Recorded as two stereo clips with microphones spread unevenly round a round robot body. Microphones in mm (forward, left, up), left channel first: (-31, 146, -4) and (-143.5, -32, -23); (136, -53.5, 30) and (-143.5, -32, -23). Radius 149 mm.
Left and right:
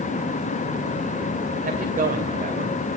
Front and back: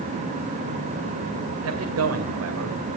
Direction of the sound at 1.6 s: 165° right.